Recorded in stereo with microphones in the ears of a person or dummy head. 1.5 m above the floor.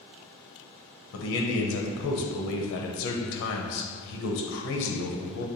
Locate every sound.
1.1 s a man speaking: 70° left (ahead or behind), 0.8 m